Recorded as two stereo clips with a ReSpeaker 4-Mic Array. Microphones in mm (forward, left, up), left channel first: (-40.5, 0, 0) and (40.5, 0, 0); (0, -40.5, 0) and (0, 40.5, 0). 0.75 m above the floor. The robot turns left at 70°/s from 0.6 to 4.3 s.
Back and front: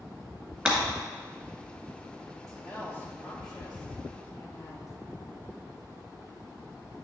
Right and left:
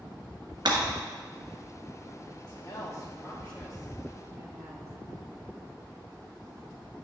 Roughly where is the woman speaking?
Right.